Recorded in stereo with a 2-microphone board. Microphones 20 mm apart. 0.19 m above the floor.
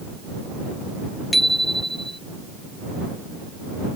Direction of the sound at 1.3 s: Centre (ahead or behind).